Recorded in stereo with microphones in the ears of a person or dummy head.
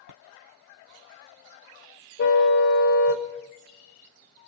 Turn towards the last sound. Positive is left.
turn(degrees=55)  # may be behind; listen again after turning